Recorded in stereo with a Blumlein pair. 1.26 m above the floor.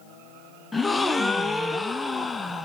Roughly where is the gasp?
Ahead.